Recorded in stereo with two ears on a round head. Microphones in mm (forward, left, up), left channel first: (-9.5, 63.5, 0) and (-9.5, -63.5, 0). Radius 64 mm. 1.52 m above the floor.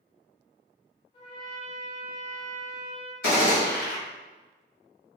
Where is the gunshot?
70° left (ahead or behind), 1.6 m.